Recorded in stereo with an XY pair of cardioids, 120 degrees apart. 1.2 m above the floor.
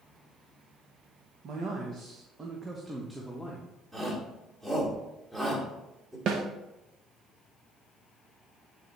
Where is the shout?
15° right, 3 m.